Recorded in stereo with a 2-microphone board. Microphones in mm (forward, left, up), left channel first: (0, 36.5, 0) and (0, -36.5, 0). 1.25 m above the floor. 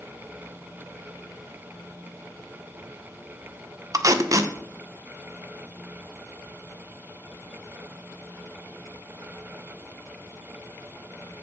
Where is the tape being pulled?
50° right (ahead or behind), 0.6 m.